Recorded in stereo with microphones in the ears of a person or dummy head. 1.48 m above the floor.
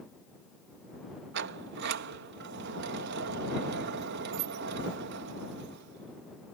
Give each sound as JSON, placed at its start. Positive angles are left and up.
{"t": 1.3, "sound": "a sliding door", "side_deg": -70}